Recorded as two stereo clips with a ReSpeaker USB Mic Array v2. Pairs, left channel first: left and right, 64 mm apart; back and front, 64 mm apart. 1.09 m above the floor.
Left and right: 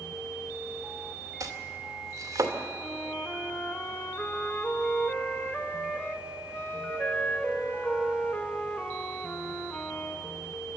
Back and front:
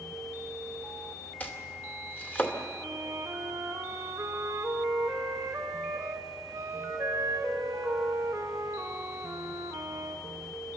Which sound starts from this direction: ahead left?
A flute, at 2.8 s.